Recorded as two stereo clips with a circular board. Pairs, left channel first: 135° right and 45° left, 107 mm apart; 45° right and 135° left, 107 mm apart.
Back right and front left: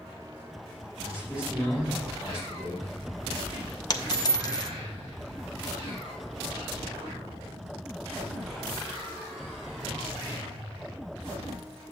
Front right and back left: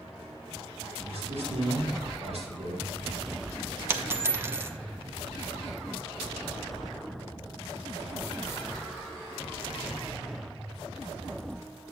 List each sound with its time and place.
1.0 s a man speaking: 125° left, 5 m
3.9 s a dropped coin: 165° right, 0.8 m